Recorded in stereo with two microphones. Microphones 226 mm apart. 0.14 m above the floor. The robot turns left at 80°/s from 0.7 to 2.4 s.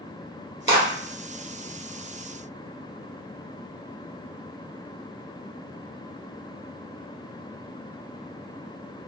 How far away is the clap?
About 1.9 m.